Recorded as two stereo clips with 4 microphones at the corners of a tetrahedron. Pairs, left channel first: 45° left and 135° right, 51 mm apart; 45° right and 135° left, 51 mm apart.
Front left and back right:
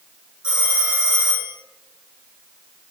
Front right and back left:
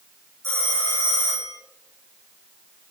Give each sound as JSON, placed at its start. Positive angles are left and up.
{"t": 0.4, "sound": "a phone ringing", "azimuth_deg": 155, "distance_m": 4.0}